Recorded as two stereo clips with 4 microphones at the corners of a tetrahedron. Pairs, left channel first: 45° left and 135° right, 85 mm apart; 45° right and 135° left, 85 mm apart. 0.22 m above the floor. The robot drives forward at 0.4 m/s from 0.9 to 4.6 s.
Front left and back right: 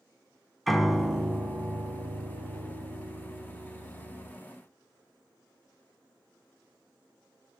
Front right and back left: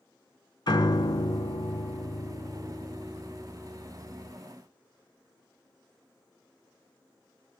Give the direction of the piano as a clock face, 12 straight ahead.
1 o'clock.